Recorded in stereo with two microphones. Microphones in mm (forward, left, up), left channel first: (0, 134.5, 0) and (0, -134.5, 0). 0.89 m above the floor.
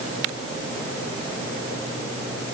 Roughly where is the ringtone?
I don't hear a ringtone.